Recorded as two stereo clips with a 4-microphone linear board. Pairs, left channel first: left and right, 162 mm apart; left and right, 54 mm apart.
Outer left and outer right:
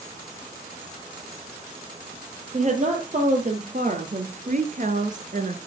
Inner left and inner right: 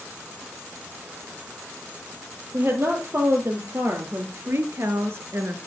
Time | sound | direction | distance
2.5 | a woman speaking | 50° right (ahead or behind) | 3 m